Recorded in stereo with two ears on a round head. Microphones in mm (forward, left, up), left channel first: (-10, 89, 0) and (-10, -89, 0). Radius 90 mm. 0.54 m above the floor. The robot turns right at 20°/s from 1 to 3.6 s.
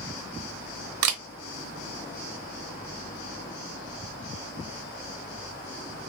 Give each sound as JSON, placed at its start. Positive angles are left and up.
{"t": 1.0, "sound": "a camera shutter", "side_deg": -85, "distance_m": 0.7}